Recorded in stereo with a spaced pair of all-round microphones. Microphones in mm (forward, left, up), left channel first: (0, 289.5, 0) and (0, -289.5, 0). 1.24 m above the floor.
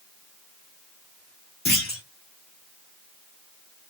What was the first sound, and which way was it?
A clunk, 20° left (ahead or behind).